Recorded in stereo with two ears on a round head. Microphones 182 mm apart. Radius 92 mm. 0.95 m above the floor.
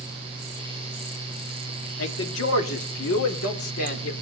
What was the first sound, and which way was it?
A man speaking, 65° left (ahead or behind).